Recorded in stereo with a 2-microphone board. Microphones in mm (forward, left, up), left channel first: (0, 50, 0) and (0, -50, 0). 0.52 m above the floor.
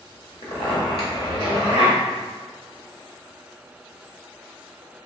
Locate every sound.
0.4 s a zipper: 65° left (ahead or behind), 1.7 m